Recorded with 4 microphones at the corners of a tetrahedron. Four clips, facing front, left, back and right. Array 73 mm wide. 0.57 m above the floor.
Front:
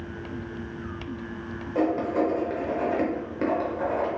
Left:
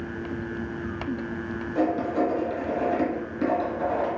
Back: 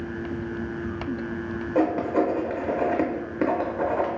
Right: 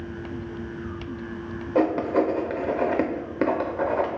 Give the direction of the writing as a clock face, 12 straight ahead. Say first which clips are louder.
Right 3 dB, back 2 dB; 4 o'clock.